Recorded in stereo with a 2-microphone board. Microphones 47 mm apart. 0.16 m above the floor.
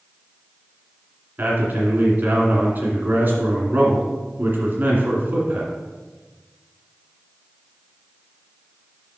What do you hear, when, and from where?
1.4 s a man speaking: 45° right (ahead or behind), 2 m